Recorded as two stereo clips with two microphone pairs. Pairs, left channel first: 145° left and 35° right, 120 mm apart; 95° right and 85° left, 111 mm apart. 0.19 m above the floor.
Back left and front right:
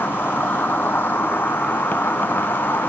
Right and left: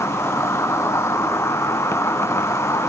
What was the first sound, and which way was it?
An insect, 145° right.